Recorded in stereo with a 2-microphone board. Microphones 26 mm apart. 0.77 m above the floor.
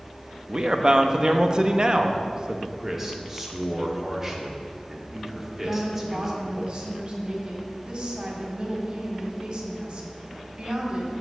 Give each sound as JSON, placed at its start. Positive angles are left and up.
{"t": 0.5, "sound": "a man speaking", "side_deg": -30, "distance_m": 0.7}
{"t": 2.8, "sound": "a man speaking", "side_deg": -10, "distance_m": 1.5}
{"t": 5.6, "sound": "a woman speaking", "side_deg": -45, "distance_m": 2.0}